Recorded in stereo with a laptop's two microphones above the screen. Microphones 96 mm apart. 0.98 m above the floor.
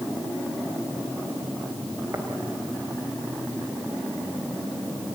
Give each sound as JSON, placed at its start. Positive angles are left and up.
{"t": 2.1, "sound": "tapping", "side_deg": -35, "distance_m": 3.5}